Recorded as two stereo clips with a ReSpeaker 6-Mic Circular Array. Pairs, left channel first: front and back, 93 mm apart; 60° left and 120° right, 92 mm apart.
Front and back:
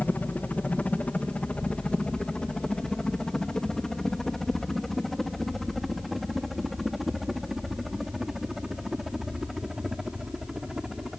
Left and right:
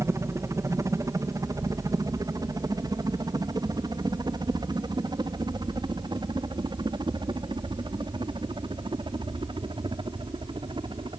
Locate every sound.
0.0 s a helicopter: 70° right; by 11.2 s 95° right